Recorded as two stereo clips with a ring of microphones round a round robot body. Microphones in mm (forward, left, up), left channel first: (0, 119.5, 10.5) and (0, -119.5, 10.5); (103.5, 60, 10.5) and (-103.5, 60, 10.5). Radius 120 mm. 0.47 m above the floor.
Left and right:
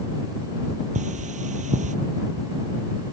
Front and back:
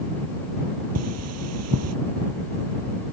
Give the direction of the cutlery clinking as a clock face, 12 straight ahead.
5 o'clock.